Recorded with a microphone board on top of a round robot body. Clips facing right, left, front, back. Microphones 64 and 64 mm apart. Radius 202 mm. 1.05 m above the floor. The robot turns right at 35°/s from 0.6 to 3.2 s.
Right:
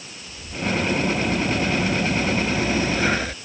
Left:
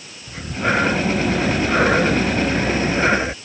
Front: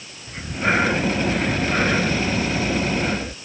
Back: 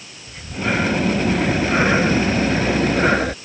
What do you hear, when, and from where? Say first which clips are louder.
0.3 s breathing: left 6 dB, front 1 dB; 65° left; by 3.4 s 155° left